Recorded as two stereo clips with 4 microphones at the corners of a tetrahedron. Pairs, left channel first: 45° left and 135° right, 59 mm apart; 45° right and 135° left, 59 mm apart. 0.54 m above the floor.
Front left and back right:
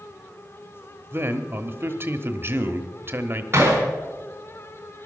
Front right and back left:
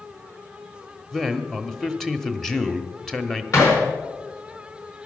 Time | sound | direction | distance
1.1 | a man speaking | 125° right | 1.1 m
3.5 | hammering | 85° right | 4.5 m